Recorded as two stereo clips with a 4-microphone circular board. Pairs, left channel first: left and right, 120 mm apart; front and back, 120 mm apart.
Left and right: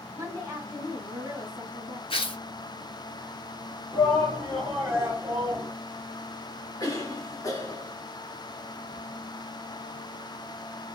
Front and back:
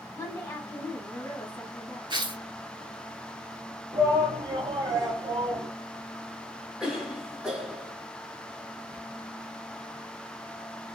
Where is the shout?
145° right, 1.3 m.